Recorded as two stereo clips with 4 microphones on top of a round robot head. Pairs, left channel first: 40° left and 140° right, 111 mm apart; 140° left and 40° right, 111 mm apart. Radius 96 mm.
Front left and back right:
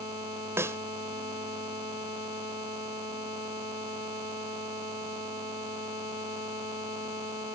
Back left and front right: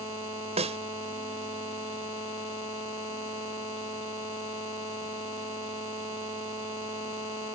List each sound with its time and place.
0.6 s a snare drum: 70° right